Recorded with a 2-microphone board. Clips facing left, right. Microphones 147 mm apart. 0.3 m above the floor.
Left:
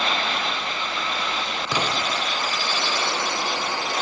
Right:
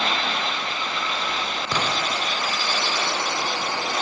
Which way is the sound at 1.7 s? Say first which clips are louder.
Left 1 dB; 10° left (ahead or behind).